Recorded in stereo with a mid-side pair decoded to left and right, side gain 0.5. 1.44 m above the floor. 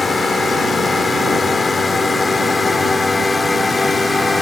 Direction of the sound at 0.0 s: 30° left.